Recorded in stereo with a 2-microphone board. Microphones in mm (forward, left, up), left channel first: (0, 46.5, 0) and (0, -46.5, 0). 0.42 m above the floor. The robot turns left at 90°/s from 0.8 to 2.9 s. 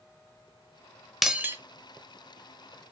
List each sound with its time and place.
1.2 s breaking glass: centre (ahead or behind), 0.6 m; by 1.6 s 30° right (ahead or behind), 0.6 m